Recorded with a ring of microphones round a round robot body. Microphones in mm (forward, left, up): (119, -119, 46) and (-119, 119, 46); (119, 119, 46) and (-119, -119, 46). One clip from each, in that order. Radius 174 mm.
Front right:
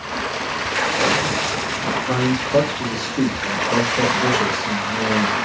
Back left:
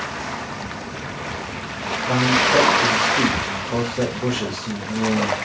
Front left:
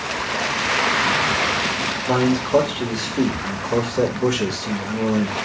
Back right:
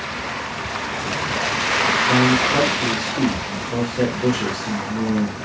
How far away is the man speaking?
About 1.1 m.